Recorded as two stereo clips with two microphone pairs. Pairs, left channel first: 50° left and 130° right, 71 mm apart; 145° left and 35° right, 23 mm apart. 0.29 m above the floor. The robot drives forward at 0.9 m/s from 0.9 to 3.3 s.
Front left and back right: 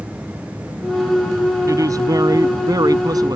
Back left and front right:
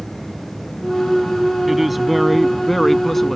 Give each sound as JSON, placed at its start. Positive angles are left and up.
{"t": 1.7, "sound": "a woman speaking", "azimuth_deg": -110}